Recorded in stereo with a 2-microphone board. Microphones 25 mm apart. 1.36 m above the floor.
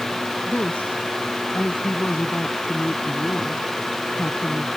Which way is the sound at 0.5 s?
80° left.